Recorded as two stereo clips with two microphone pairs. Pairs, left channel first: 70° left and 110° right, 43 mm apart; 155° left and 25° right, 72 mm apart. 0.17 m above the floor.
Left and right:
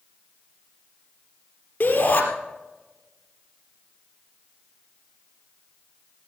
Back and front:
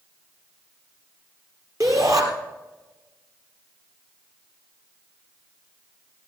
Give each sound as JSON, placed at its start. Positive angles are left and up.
{"t": 1.8, "sound": "a shout", "azimuth_deg": 15, "distance_m": 3.5}